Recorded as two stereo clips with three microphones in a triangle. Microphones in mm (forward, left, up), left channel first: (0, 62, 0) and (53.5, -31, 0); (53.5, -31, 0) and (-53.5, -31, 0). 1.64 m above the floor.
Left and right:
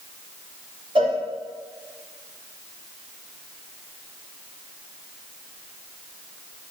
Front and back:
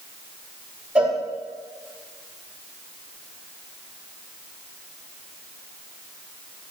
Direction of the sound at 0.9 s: 100° right.